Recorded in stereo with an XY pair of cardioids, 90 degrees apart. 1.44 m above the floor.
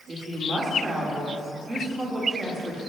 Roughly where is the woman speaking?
Ahead right.